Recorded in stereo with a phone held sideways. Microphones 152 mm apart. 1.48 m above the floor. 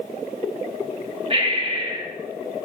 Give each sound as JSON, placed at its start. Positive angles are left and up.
{"t": 1.3, "sound": "breathing", "side_deg": -35, "distance_m": 2.5}